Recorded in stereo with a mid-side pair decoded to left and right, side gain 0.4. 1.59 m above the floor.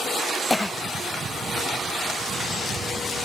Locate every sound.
0.5 s a cough: 15° left